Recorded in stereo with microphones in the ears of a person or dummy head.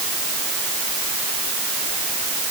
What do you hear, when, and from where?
Only background noise.